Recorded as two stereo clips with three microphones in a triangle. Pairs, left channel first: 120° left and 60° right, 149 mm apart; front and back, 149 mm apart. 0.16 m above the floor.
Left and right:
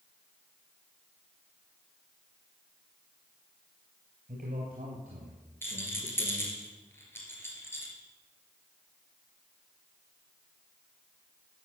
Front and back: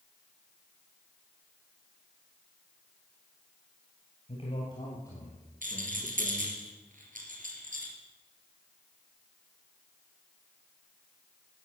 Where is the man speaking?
45° right, 3 m; by 6.6 s 95° right, 4 m.